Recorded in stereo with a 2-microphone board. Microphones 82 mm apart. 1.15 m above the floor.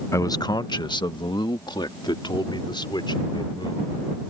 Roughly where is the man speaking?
Left.